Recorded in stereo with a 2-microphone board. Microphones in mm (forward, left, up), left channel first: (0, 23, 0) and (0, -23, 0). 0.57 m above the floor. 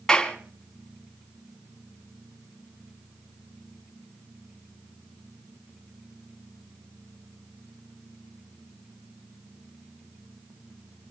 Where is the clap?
15° left (ahead or behind), 3.5 m.